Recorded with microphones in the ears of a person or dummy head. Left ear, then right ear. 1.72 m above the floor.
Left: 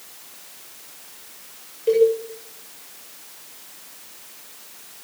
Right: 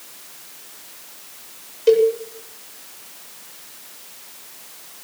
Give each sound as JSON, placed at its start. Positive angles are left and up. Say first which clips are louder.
{"t": 1.9, "sound": "a cowbell", "louder": "right 2 dB", "side_deg": -55, "distance_m": 8.0}